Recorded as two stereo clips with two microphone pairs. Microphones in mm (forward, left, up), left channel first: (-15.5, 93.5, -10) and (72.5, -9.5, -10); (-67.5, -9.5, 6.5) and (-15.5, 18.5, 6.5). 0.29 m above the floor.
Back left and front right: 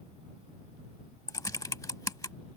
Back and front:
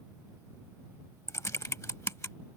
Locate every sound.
1.3 s typing on a keyboard: 170° right